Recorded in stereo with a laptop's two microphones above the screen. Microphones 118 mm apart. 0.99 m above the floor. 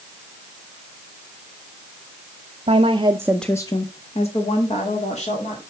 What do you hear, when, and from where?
2.7 s a woman speaking: 60° right (ahead or behind), 1.0 m; by 5.6 s 75° left (ahead or behind), 3 m